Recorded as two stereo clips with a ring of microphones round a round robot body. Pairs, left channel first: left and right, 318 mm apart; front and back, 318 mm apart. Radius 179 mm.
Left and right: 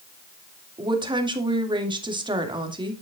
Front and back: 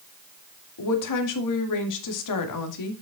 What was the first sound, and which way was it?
A woman speaking, 15° right.